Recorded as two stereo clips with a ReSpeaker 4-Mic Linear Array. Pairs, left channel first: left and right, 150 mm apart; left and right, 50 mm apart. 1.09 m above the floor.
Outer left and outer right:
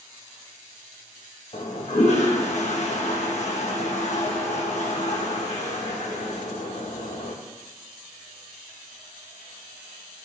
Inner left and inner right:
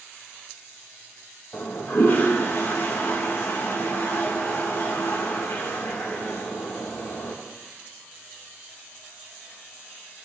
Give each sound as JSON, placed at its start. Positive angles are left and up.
{"t": 1.5, "sound": "a toilet flushing", "side_deg": 50, "distance_m": 1.7}